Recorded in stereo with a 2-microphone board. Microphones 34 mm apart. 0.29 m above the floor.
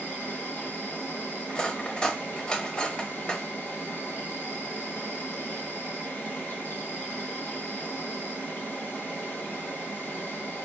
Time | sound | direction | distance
0.0 | an insect | 70° left (ahead or behind) | 0.9 m
1.5 | cutlery clinking | 25° left (ahead or behind) | 0.6 m